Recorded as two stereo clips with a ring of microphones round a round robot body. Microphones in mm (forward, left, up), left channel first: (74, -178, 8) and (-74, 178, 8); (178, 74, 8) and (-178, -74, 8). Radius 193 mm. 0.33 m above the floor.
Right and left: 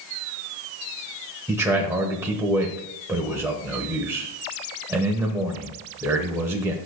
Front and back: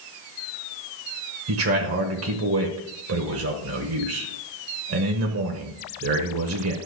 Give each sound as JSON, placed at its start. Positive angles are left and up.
{"t": 1.5, "sound": "a man speaking", "azimuth_deg": -170, "distance_m": 1.0}